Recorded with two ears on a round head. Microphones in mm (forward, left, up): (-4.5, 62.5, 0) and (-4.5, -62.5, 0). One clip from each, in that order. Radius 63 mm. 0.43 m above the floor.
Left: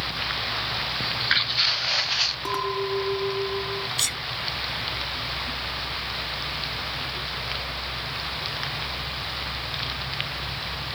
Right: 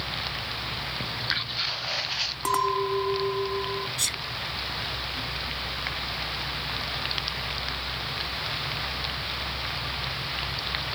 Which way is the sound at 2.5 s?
40° right (ahead or behind).